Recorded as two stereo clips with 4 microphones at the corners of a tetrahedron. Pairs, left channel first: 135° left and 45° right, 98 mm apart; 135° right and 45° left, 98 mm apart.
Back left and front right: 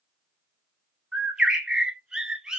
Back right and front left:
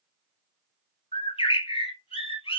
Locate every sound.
1.1 s a bird: 130° right, 0.7 m